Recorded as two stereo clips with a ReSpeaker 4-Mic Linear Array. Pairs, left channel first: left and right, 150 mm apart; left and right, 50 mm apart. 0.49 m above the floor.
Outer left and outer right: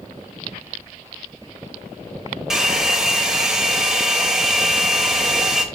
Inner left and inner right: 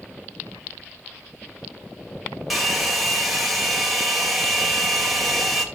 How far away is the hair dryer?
About 1.8 m.